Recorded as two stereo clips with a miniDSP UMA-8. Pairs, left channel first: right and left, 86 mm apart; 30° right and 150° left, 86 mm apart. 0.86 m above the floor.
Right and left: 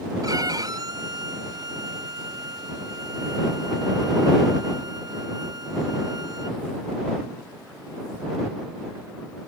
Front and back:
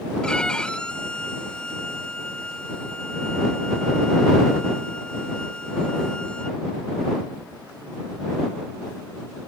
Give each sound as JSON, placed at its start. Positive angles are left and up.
{"t": 0.2, "sound": "a violin", "azimuth_deg": 50}